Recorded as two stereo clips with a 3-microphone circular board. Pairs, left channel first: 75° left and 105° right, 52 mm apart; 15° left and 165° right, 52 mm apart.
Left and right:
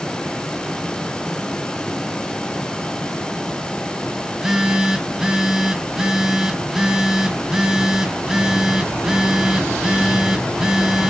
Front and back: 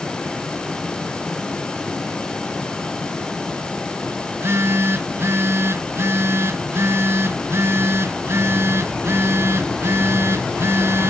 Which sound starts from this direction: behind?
A phone buzzing, at 4.3 s.